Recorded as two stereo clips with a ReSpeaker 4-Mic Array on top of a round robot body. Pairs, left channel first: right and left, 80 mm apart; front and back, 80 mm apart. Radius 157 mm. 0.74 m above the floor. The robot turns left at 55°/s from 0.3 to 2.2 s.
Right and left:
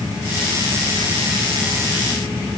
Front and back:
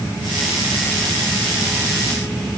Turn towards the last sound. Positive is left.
No sound to turn to.